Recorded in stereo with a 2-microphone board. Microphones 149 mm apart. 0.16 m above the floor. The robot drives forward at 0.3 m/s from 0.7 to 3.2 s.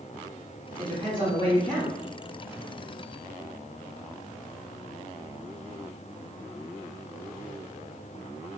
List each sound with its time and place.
0.8 s a woman speaking: 30° right (ahead or behind), 1.4 m; by 1.9 s 35° right (ahead or behind), 1.4 m